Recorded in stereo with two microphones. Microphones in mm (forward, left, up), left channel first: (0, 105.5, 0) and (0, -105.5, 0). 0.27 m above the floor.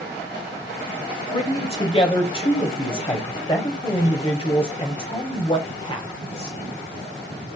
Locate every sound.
1.3 s a man speaking: 25° left (ahead or behind), 1.0 m